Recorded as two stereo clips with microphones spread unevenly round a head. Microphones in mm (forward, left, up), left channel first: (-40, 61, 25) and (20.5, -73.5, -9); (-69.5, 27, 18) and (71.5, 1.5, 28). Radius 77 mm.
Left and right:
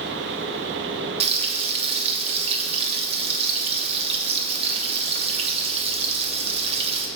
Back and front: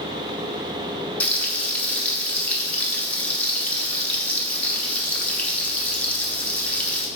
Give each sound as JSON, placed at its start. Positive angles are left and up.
{"t": 1.2, "sound": "frying", "azimuth_deg": -110, "distance_m": 1.0}